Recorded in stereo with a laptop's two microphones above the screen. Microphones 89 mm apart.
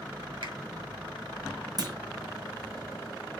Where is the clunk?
50° right (ahead or behind), 1.0 m.